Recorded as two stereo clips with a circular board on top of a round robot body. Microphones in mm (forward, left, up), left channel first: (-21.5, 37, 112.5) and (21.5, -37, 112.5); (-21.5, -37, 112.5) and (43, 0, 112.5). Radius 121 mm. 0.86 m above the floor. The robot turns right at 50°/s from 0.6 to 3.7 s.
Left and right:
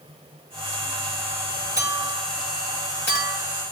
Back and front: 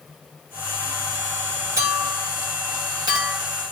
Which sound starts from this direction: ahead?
A clink, at 1.8 s.